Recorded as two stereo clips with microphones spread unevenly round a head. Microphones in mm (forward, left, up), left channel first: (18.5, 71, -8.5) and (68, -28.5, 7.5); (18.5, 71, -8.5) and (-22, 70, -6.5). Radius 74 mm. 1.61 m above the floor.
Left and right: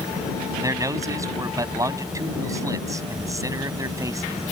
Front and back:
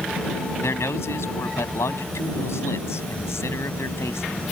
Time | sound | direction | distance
0.6 | a man speaking | 5° right | ?